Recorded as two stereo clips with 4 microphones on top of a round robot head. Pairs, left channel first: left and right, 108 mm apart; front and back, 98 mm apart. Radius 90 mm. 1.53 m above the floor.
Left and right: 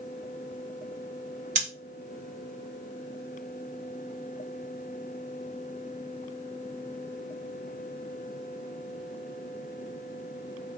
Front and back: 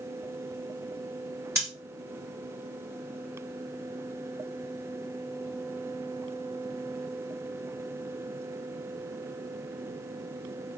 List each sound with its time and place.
1.6 s scissors: 105° right, 0.8 m